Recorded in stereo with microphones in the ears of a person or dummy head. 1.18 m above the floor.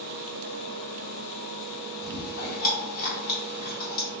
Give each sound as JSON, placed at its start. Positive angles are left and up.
{"t": 2.0, "sound": "chewing", "side_deg": 45, "distance_m": 1.8}